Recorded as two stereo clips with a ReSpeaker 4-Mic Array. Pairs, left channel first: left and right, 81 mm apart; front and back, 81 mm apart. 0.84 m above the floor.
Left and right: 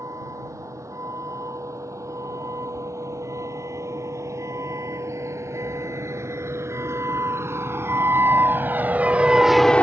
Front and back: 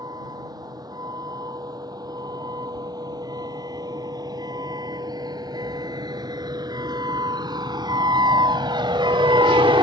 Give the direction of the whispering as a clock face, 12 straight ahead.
No whispering in this recording.